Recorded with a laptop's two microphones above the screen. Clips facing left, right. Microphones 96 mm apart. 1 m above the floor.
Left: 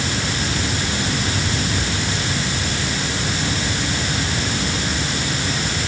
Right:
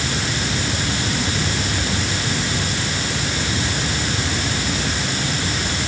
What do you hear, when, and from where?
Only background noise.